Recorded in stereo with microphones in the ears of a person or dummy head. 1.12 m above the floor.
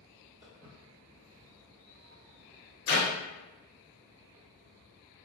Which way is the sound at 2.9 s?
45° left (ahead or behind).